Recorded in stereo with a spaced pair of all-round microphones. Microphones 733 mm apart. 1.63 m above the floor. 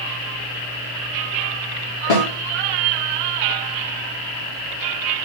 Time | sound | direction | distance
2.1 | a snare drum | 75° left (ahead or behind) | 2.5 m